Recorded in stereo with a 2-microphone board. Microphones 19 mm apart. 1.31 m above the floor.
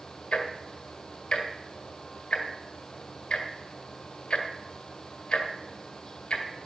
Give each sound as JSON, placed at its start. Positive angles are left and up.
{"t": 0.3, "sound": "ticking", "side_deg": 45, "distance_m": 1.6}